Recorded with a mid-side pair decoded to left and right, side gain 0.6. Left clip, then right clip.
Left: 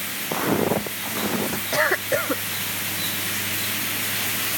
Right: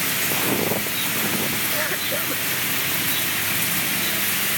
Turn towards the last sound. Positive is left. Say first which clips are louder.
# left 3 dB
turn(degrees=35)